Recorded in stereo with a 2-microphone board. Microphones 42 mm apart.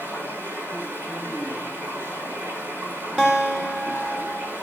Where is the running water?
55° right (ahead or behind), 8.5 m.